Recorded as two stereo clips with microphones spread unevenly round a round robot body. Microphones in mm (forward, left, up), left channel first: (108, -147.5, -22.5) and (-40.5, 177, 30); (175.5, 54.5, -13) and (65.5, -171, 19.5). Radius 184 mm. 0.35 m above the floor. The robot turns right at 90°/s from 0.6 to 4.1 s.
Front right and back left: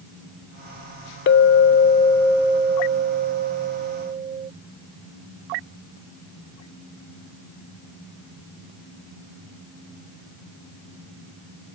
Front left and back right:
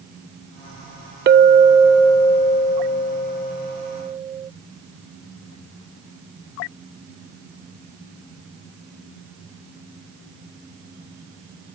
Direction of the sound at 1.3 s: 80° right.